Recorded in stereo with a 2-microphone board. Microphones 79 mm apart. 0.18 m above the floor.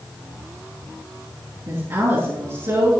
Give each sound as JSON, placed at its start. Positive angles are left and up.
{"t": 1.7, "sound": "a woman speaking", "side_deg": -35, "distance_m": 3.0}